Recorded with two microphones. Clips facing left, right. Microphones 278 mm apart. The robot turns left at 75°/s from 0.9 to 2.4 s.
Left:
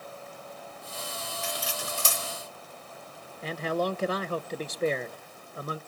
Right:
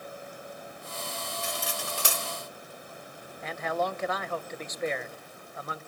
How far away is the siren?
No siren in this recording.